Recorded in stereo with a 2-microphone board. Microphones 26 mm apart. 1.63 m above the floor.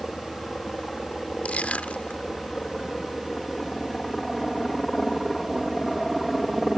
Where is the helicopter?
30° left (ahead or behind); by 6.8 s 5° left (ahead or behind).